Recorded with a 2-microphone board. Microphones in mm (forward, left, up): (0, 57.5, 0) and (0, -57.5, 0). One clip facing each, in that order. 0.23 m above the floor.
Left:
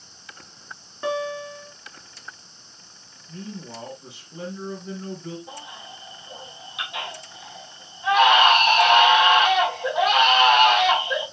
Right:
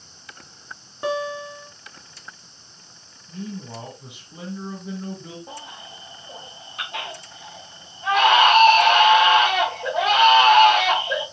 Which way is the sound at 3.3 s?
15° right (ahead or behind).